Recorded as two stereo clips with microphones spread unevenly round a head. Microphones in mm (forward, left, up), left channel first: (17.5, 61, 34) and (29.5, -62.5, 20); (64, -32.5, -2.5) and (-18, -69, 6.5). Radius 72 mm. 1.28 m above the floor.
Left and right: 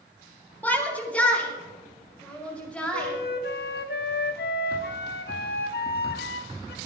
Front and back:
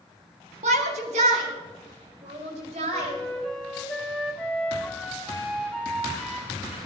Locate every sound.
0.6 s a shout: 175° left, 2 m; by 3.1 s straight behind, 6 m
2.9 s a flute: 110° left, 1.0 m